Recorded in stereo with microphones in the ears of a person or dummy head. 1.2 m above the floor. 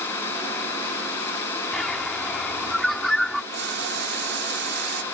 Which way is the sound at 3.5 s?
55° right (ahead or behind).